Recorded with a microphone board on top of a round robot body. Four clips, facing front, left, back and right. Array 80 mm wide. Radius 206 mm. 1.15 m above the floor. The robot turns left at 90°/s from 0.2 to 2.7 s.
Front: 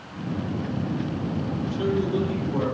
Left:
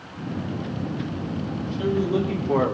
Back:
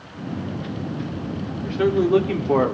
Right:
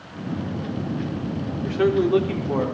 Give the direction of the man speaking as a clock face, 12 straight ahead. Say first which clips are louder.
Right 6 dB, back 8 dB; 4 o'clock.